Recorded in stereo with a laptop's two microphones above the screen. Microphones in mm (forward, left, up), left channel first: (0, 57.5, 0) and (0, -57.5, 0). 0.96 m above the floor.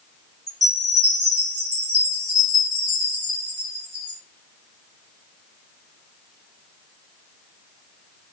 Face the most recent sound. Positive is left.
turn(degrees=-30)  # may be behind; listen again after turning